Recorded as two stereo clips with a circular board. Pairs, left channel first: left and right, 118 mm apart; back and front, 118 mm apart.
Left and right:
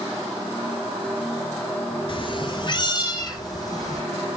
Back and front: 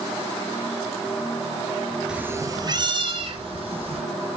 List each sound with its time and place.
2.1 s a cat meowing: 80° left, 0.8 m; by 4.0 s 30° left, 2.5 m